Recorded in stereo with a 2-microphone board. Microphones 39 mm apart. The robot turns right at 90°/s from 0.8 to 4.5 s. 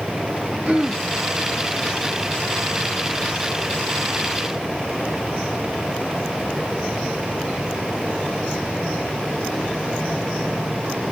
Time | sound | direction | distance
0.7 | throat clearing | 45° right (ahead or behind) | 1.8 m